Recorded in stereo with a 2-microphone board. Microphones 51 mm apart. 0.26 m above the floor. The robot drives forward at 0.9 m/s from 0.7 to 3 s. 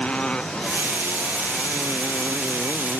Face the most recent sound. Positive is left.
turn(degrees=25)  # may be behind; listen again after turning